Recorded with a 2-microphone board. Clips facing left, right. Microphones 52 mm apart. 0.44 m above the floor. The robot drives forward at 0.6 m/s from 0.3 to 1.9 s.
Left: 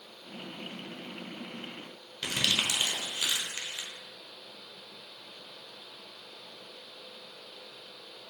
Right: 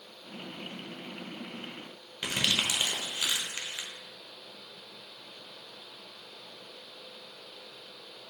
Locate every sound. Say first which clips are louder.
2.2 s crumpling: even; 15° right (ahead or behind), 0.6 m